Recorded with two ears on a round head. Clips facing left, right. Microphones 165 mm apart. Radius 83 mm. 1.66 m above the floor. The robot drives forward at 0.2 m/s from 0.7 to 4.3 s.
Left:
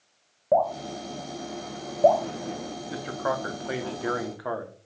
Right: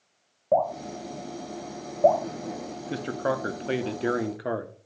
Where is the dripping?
5° left (ahead or behind), 1.3 m.